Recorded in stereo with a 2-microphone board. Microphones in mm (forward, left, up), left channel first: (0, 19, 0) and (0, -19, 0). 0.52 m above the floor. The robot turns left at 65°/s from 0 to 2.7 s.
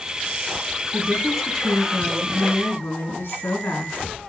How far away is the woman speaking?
About 4.5 m.